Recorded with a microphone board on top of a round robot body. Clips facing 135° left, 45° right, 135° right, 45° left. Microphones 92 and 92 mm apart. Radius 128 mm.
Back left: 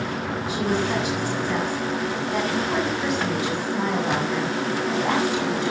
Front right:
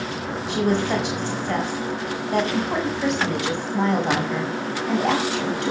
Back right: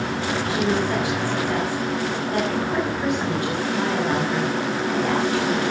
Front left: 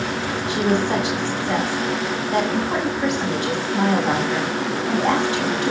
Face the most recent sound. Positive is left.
turn(degrees=-20)